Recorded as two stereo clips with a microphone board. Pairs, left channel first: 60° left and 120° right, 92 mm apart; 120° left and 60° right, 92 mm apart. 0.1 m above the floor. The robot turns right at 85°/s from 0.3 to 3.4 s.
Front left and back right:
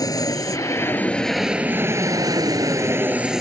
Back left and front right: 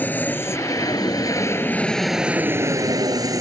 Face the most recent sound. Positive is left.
turn(degrees=-35)